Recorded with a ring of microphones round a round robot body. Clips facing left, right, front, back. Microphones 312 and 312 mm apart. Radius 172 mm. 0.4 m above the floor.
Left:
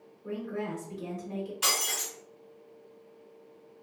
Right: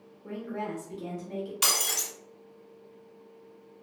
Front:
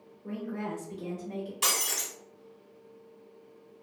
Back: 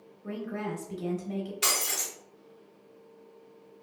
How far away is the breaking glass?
About 1.4 m.